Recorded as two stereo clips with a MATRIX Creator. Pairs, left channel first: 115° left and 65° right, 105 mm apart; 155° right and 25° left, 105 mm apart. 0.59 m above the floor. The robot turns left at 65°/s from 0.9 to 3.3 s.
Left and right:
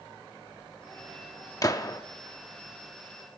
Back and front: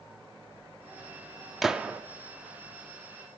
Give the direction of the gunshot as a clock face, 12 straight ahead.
8 o'clock.